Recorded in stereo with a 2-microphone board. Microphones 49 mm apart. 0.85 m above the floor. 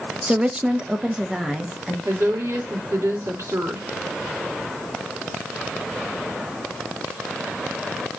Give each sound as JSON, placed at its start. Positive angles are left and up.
{"t": 0.3, "sound": "a woman speaking", "side_deg": -25, "distance_m": 0.7}
{"t": 2.0, "sound": "a woman speaking", "side_deg": -65, "distance_m": 2.5}